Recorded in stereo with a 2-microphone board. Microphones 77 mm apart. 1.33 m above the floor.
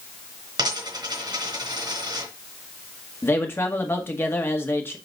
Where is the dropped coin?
65° right (ahead or behind), 3.5 m.